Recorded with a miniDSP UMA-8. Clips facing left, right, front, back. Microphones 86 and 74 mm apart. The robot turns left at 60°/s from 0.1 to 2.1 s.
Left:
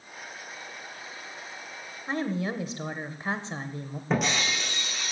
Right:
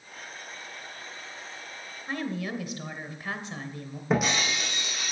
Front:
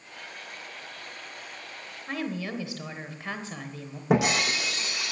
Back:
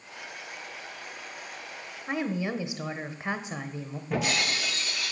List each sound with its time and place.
2.1 s a woman speaking: 130° left, 1.0 m; by 4.0 s 125° left, 1.0 m
4.1 s breaking glass: 5° right, 5.5 m